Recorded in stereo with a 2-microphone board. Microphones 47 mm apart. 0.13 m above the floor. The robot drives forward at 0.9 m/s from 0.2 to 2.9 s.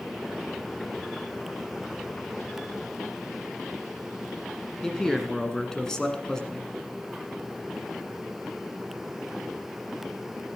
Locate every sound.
4.8 s a man speaking: 15° left (ahead or behind), 1.5 m